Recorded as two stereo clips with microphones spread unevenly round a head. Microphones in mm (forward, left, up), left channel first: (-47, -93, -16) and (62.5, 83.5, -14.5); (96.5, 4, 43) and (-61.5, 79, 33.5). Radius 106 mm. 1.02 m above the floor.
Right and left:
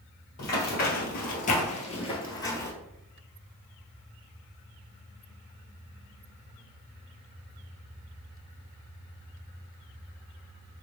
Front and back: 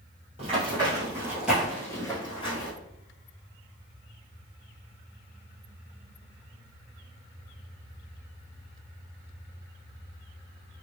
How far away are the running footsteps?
About 1.6 m.